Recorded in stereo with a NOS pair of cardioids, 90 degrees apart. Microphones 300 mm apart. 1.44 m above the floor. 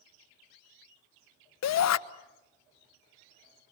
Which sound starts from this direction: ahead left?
A shout, at 1.6 s.